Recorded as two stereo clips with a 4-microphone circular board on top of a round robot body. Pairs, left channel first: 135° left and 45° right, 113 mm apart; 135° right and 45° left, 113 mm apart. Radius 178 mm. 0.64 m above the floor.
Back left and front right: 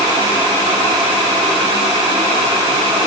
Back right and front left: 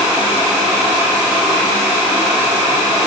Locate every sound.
Only background noise.